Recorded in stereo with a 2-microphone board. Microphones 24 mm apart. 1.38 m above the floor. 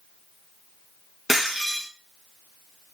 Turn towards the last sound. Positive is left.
turn(degrees=-20)  # may be behind; listen again after turning